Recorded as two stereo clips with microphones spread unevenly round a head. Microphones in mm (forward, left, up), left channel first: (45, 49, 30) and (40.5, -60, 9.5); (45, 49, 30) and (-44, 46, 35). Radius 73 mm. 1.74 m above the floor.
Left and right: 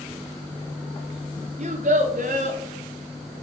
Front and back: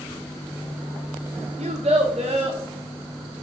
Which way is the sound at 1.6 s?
140° right.